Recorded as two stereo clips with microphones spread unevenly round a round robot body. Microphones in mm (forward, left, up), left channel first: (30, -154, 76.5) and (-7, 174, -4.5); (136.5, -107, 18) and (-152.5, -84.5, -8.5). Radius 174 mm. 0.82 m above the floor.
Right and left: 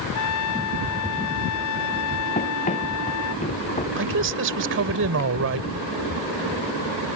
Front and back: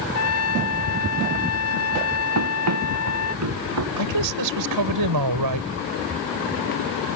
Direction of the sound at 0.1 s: 40° right.